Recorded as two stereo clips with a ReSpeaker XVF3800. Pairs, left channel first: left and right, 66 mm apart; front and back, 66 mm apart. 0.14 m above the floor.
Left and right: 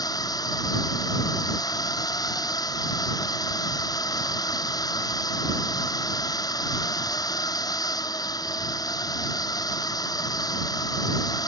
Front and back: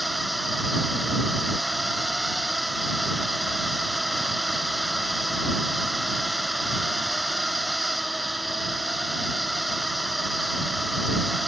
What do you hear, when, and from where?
0.0 s a drone: 90° left